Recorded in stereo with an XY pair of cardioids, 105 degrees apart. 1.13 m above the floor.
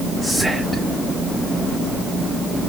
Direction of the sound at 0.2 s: 5° left.